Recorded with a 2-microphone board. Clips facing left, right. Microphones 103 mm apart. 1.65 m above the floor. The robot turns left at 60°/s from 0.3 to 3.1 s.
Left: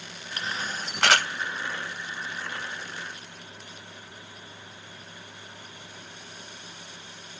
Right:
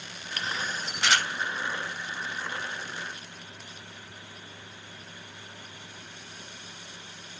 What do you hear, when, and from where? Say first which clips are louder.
0.4 s a camera shutter: even; 25° left (ahead or behind), 0.6 m; by 1.3 s 80° left, 0.6 m